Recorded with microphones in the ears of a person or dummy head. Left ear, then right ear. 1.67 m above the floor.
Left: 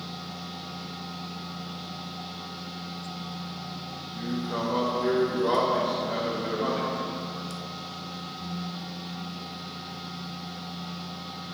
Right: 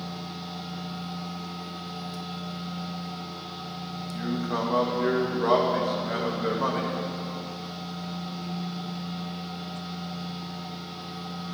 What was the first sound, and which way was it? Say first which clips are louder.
A machine running: right 1 dB; 35° right (ahead or behind).